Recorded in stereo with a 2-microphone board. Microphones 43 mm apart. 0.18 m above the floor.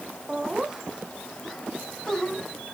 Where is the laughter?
25° right (ahead or behind), 1.9 m; by 2.4 s 15° left (ahead or behind), 1.6 m.